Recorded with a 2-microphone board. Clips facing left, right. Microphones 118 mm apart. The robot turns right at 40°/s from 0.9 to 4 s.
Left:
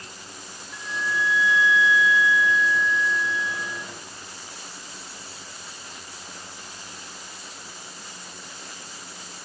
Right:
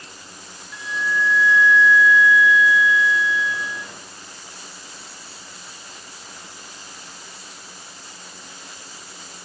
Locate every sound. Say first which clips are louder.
0.7 s a flute: right 4 dB; 55° left, 2 m; by 3.8 s 175° left, 2 m